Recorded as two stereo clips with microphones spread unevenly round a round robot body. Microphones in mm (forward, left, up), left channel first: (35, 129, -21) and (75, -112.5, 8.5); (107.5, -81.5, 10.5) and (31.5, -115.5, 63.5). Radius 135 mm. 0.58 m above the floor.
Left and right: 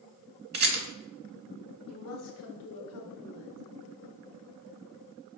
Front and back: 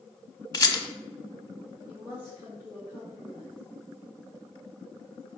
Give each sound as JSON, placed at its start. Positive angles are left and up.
{"t": 0.5, "sound": "a rattle", "azimuth_deg": -30, "distance_m": 1.6}
{"t": 1.9, "sound": "a woman speaking", "azimuth_deg": 115, "distance_m": 1.9}